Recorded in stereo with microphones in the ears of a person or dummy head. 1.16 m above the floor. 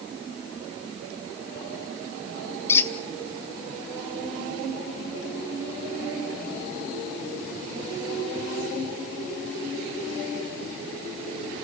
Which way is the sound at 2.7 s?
10° left (ahead or behind).